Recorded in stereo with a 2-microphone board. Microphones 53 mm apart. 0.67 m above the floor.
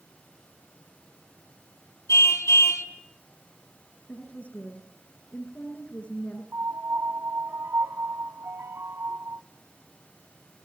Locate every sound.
2.1 s a car horn: 85° left, 2.5 m
4.1 s a woman speaking: 25° left (ahead or behind), 9.5 m
6.5 s a piano: 55° right (ahead or behind), 1.1 m